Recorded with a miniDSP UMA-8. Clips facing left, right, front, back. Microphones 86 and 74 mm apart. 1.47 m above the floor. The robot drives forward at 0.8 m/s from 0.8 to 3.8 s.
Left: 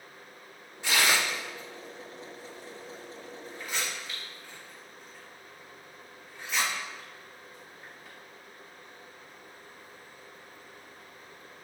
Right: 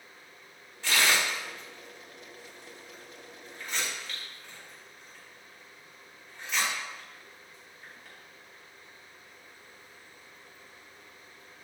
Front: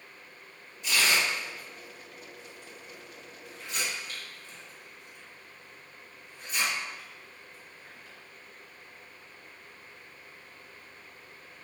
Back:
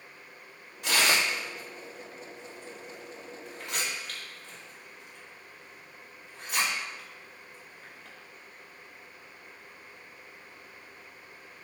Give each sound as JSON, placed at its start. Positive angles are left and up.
{"t": 0.8, "sound": "tearing paper", "azimuth_deg": 165, "distance_m": 2.0}